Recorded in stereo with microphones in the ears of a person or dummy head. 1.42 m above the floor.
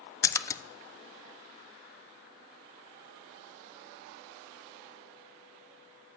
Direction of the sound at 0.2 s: 15° left (ahead or behind).